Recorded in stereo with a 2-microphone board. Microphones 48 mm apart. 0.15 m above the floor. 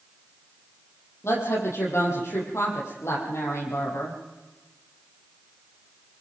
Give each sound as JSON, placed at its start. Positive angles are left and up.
{"t": 1.2, "sound": "a woman speaking", "side_deg": 70, "distance_m": 7.0}